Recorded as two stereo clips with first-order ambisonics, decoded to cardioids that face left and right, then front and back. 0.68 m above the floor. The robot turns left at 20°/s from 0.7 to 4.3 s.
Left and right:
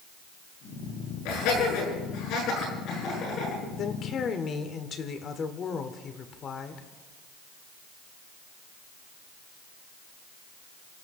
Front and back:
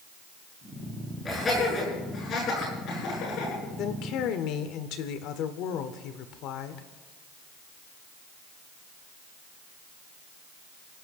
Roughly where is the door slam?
I don't hear a door slam.